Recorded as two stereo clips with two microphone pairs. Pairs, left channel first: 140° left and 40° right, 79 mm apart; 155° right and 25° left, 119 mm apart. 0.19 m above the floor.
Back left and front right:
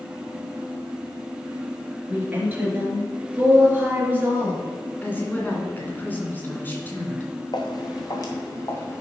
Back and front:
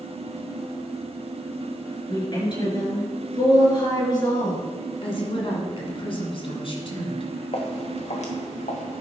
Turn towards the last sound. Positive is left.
turn(degrees=-160)